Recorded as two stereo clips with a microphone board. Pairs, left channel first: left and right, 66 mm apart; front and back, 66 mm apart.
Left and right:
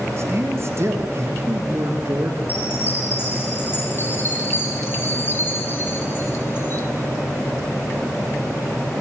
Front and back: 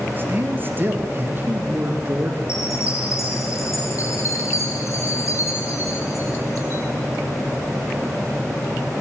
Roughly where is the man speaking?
Behind right.